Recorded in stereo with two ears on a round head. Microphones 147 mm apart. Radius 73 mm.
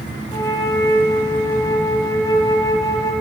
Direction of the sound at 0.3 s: 25° left (ahead or behind).